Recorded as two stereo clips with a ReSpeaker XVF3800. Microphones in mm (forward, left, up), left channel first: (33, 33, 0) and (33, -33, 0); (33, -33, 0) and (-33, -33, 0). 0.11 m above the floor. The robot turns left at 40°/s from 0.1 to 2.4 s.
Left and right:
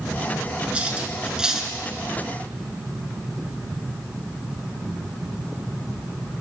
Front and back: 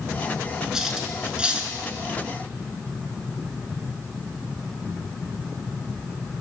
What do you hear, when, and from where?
0.7 s cutlery clinking: 120° right, 0.7 m; by 1.8 s 160° right, 0.7 m